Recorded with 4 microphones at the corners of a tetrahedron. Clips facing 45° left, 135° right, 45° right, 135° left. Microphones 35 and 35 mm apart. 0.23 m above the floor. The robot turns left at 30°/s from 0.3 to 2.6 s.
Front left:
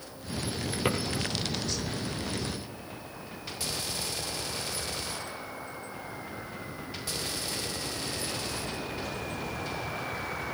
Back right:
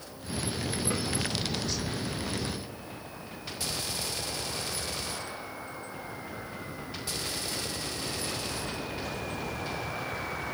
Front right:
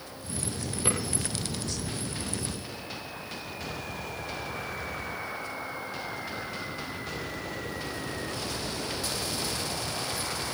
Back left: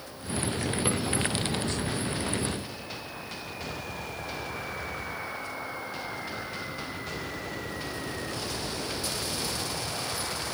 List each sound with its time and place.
0.8 s a drawer: 60° left, 3.5 m; by 1.0 s 55° left, 3.5 m